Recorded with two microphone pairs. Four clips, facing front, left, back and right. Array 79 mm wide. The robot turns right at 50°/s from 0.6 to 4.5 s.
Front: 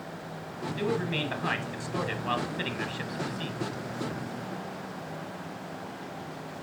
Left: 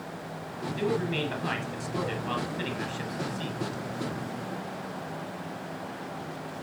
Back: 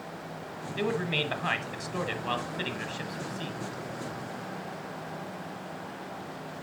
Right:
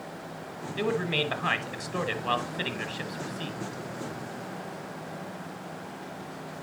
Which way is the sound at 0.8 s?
160° right.